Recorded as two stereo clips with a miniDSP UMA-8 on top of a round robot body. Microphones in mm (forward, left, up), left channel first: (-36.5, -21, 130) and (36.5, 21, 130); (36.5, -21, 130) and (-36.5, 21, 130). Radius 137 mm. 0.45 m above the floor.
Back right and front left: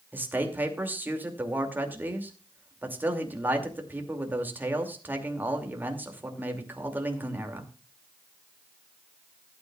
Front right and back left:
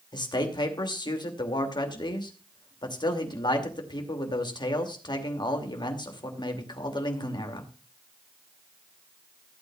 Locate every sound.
0.1 s a man speaking: 35° right, 2.5 m